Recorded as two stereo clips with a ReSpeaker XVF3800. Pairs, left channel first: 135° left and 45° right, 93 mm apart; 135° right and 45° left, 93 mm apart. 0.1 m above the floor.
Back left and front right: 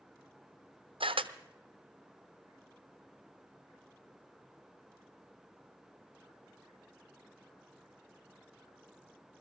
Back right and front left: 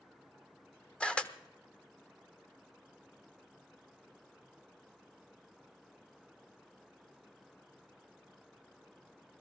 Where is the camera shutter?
55° right, 0.7 m.